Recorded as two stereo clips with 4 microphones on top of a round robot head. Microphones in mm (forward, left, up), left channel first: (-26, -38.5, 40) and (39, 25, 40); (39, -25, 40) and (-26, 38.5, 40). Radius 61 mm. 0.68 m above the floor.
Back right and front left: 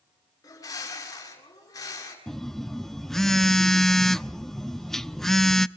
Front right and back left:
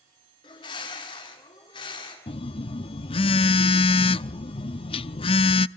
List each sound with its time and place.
0.4 s a bird: 80° right, 8.5 m
2.3 s a phone buzzing: 50° right, 0.6 m